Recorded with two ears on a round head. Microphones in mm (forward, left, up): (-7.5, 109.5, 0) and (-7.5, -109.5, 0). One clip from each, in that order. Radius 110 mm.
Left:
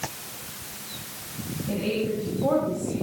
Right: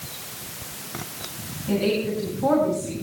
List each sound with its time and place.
1.7 s a woman speaking: 30° right (ahead or behind), 7.5 m